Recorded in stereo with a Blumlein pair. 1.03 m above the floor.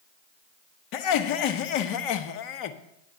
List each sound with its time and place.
0.9 s laughter: 40° left, 1.1 m